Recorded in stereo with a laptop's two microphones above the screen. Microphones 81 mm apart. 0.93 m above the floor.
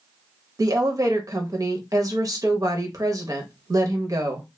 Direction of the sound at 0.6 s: 45° right (ahead or behind).